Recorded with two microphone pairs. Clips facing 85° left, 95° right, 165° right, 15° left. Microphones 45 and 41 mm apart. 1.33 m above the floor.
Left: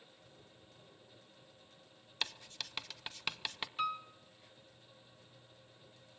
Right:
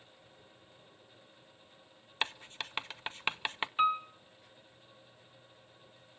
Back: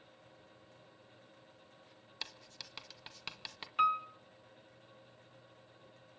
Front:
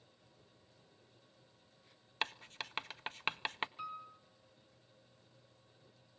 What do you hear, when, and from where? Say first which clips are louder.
2.2 s writing: right 5 dB, front 8 dB; 30° right, 0.7 m
3.8 s a piano: right 9 dB, back 15 dB; 145° right, 0.8 m